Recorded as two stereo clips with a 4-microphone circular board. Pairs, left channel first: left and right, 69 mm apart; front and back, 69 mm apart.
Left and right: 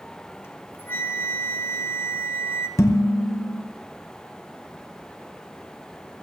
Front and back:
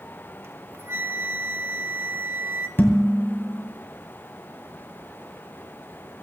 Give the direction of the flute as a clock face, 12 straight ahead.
8 o'clock.